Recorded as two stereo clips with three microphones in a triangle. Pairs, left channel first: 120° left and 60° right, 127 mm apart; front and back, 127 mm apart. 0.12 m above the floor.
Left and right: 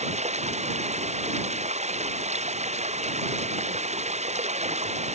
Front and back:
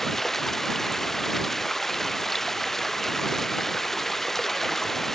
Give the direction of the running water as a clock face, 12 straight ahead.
3 o'clock.